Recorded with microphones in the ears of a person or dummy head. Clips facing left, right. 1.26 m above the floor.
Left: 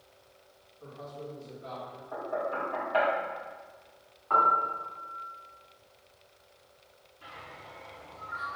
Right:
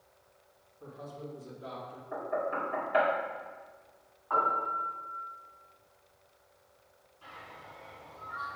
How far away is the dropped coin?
No dropped coin in this recording.